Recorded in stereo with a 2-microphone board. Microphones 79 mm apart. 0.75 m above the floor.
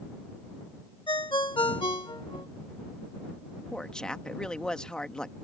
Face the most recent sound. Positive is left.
turn(degrees=10)  # may be behind; listen again after turning